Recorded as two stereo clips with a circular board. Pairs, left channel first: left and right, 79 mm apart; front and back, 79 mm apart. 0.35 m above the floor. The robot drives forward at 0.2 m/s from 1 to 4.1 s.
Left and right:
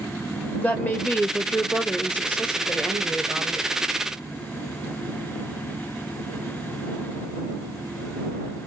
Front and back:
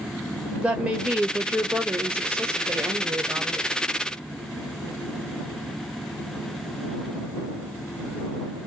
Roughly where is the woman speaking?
Behind left.